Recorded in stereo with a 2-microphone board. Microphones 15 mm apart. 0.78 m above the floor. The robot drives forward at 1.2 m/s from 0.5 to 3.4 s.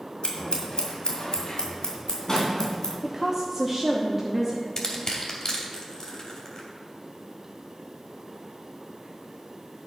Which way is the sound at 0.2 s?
85° left.